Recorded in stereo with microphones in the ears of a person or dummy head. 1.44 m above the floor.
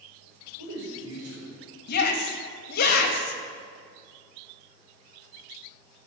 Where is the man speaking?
70° right (ahead or behind), 5 m.